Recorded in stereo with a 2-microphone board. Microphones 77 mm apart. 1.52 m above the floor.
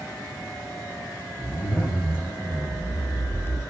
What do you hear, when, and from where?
1.4 s a zipper: 20° right (ahead or behind), 4 m